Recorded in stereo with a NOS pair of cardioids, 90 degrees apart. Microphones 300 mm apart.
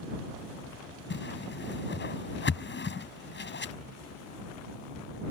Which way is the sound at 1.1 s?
35° left.